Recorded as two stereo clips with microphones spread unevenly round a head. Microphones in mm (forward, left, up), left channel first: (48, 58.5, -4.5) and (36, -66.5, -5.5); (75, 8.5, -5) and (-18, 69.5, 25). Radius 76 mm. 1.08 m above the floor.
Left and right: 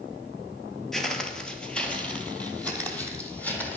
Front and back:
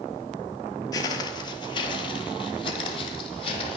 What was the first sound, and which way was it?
Footsteps, 5° left.